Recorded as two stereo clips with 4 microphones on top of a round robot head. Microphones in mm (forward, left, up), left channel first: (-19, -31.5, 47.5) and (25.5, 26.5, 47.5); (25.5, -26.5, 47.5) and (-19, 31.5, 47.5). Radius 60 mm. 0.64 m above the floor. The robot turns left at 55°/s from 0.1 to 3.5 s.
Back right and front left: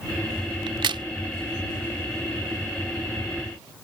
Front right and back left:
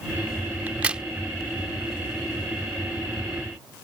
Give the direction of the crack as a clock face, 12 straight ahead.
10 o'clock.